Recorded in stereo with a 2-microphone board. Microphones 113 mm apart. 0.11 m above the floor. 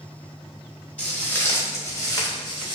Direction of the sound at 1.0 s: 10° left (ahead or behind).